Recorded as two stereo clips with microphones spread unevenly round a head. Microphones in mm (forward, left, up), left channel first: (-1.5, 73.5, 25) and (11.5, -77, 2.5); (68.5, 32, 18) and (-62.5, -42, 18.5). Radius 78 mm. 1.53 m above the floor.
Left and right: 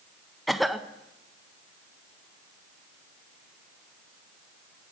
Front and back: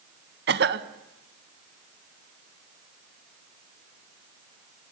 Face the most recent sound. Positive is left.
turn(degrees=-175)